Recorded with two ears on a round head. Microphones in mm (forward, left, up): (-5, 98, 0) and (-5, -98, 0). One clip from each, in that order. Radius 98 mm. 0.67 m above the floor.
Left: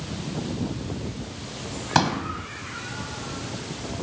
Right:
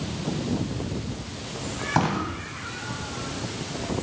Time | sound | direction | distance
1.9 | a pop | 85° left | 5.5 m